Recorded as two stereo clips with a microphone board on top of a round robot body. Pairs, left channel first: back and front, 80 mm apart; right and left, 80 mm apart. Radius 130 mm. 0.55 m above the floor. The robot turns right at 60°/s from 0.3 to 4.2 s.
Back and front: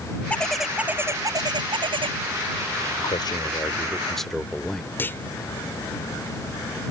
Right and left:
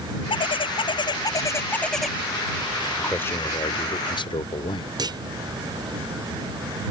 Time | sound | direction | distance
0.3 | a bird | 105° right | ?
3.0 | a man speaking | 165° right | ?
5.0 | a clunk | 115° left | ?